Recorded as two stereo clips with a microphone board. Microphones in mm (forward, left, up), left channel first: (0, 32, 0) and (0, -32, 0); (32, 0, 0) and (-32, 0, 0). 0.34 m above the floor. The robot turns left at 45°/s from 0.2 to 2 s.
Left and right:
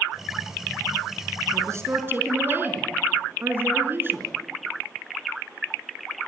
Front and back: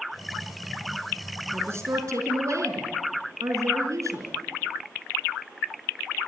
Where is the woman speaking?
125° right, 4.5 m; by 4.4 s 145° right, 4.5 m.